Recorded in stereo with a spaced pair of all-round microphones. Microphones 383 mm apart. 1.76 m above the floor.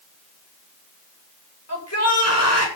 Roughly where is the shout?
Left.